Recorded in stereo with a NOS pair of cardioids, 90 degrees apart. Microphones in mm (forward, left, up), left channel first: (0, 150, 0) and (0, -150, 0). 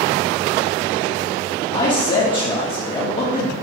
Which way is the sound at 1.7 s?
25° left.